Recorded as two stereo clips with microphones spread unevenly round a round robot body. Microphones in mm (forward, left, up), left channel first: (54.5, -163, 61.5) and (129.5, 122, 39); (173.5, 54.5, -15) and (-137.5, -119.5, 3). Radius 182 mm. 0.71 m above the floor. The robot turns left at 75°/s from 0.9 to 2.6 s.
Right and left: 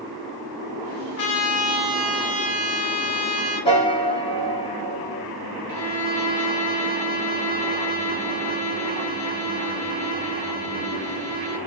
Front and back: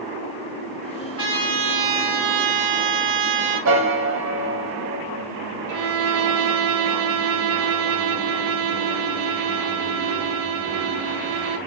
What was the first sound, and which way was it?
A trumpet, 70° right.